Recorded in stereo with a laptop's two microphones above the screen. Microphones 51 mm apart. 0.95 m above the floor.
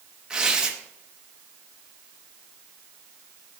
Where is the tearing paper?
15° right (ahead or behind), 1.2 m.